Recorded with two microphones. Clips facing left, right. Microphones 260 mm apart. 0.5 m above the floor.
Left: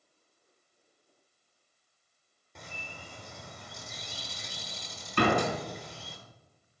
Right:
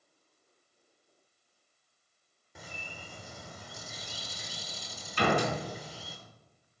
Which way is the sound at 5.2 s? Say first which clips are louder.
Left 2 dB; 70° left (ahead or behind).